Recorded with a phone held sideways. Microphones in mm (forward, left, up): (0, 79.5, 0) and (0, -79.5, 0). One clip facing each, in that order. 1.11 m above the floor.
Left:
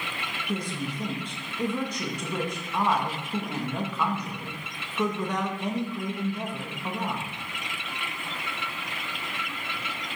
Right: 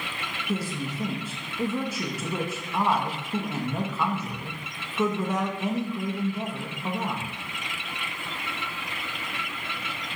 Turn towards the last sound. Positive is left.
turn(degrees=-5)  # may be behind; listen again after turning